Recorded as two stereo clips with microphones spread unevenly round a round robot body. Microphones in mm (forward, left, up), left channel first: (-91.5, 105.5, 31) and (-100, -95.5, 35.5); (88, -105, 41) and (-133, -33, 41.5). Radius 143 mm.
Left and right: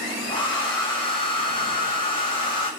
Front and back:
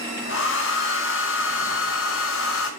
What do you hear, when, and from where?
0.3 s a hair dryer: 20° left, 1.6 m